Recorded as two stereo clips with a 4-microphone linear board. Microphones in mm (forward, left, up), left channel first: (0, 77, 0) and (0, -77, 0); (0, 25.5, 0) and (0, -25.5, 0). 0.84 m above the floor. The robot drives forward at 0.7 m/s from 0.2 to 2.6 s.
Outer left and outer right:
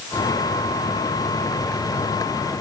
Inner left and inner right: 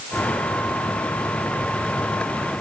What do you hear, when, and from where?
Only background noise.